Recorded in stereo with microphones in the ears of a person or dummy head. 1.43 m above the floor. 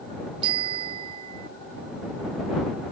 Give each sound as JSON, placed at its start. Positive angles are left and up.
{"t": 0.4, "sound": "a bicycle bell", "side_deg": -35}